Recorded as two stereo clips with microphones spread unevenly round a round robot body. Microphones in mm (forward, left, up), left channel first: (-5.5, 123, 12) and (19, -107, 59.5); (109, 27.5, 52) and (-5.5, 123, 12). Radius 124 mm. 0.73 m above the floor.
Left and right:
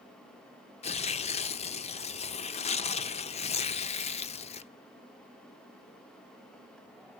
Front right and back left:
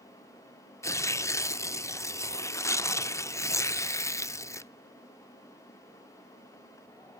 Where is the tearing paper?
30° left, 0.7 m.